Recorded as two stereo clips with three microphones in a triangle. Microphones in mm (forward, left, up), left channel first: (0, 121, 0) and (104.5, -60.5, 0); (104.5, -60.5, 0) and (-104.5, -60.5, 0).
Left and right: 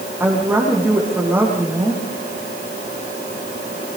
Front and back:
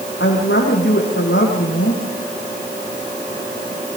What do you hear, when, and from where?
0.2 s a woman speaking: 20° left, 7 m